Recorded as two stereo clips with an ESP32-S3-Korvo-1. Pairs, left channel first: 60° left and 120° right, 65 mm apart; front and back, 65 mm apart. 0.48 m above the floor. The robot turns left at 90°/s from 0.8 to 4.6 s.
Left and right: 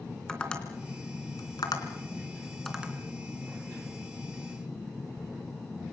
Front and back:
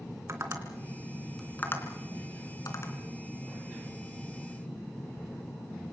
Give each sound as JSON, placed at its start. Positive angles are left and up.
{"t": 0.3, "sound": "tapping", "azimuth_deg": 140, "distance_m": 3.0}